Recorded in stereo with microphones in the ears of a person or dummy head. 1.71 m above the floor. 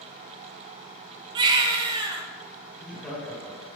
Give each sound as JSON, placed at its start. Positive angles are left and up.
{"t": 1.4, "sound": "a baby crying", "side_deg": -25, "distance_m": 1.5}
{"t": 2.7, "sound": "laughter", "side_deg": 5, "distance_m": 5.5}